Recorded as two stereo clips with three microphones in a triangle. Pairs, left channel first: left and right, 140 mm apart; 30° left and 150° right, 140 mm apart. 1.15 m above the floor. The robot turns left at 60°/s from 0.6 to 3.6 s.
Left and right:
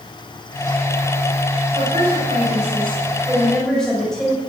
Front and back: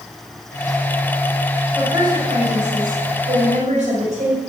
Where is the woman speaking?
70° right, 6.5 m; by 4.4 s 175° left, 6.5 m.